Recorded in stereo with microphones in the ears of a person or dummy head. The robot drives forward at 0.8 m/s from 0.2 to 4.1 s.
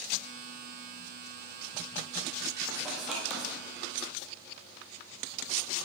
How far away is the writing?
About 1.5 m.